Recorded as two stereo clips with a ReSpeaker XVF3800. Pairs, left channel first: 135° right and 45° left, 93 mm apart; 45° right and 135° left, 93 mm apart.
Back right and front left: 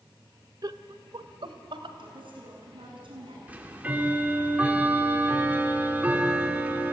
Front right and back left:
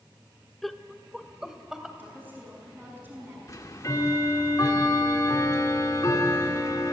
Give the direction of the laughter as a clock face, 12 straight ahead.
11 o'clock.